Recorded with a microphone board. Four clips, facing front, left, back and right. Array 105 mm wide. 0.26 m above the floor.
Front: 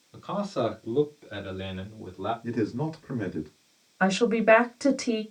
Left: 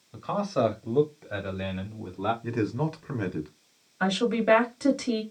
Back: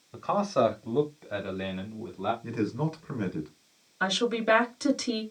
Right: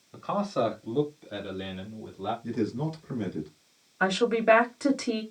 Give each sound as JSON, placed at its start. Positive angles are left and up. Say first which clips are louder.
{"t": 0.1, "sound": "a man speaking", "louder": "left 1 dB, back 4 dB", "azimuth_deg": -160, "distance_m": 1.1}
{"t": 2.4, "sound": "a man speaking", "louder": "left 1 dB, front 2 dB", "azimuth_deg": 90, "distance_m": 1.4}
{"t": 4.0, "sound": "a woman speaking", "louder": "right 1 dB, front 5 dB", "azimuth_deg": -10, "distance_m": 1.1}